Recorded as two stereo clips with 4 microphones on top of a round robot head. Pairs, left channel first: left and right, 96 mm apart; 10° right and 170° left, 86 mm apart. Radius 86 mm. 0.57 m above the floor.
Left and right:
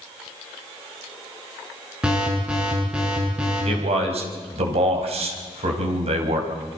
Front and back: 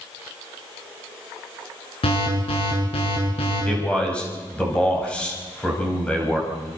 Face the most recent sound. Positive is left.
turn(degrees=-90)